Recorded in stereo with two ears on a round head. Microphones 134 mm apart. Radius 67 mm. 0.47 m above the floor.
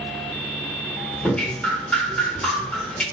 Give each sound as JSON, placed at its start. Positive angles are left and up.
{"t": 1.2, "sound": "dripping", "side_deg": 5, "distance_m": 1.1}